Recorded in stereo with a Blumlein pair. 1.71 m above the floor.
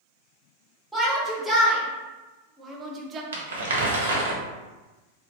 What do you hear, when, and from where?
0.9 s a shout: 5° right, 1.7 m; by 3.2 s 25° right, 0.6 m
3.3 s crumpling: 65° right, 0.8 m